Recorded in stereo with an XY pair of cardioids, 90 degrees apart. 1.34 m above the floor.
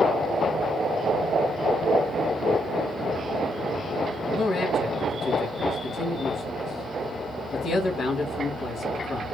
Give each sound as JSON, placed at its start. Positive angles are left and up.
{"t": 4.3, "sound": "a man speaking", "azimuth_deg": 55, "distance_m": 2.0}